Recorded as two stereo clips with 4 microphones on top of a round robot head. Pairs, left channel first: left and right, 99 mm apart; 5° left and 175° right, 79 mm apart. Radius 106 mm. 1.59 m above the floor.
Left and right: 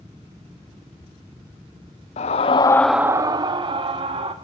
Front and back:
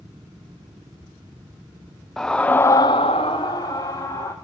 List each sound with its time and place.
2.2 s a scream: 85° left, 0.7 m; by 4.3 s 60° right, 1.5 m